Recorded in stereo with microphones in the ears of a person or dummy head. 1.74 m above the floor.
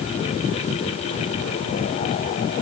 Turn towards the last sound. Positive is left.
No sound to turn to.